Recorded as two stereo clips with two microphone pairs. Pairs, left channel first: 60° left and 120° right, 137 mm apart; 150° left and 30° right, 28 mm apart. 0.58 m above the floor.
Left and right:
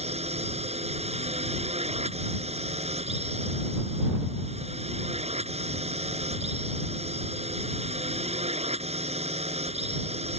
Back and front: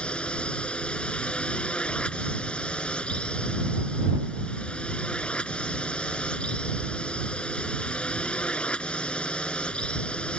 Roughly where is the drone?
Behind.